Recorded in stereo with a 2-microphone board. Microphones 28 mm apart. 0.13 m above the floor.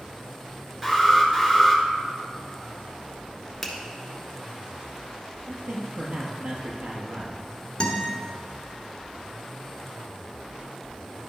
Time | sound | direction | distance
0.8 | an alarm | 10° right (ahead or behind) | 1.9 m
3.6 | a finger snap | 5° left (ahead or behind) | 1.4 m
5.5 | a man speaking | 65° right (ahead or behind) | 2.5 m
7.8 | a guitar | 35° left (ahead or behind) | 1.4 m